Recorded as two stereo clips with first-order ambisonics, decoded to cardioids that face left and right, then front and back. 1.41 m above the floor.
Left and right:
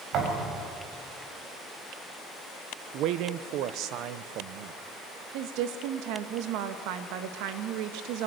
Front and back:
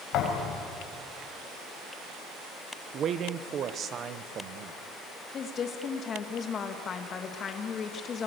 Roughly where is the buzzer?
I don't hear a buzzer.